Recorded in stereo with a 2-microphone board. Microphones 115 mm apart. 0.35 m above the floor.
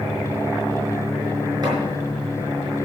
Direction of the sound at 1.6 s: 40° right (ahead or behind).